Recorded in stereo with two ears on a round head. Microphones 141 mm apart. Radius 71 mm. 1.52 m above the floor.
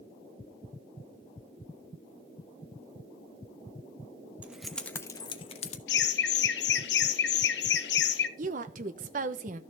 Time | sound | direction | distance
4.4 | keys jangling | 10° right (ahead or behind) | 1.1 m
5.9 | laughter | 75° left (ahead or behind) | 1.4 m
8.4 | a woman speaking | 50° right (ahead or behind) | 0.9 m